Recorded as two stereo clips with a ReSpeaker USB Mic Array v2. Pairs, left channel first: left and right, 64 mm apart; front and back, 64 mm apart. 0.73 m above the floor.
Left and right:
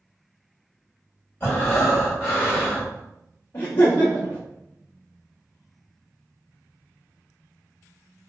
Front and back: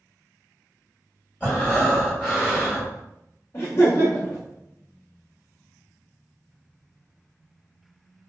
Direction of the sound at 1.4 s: 50° left.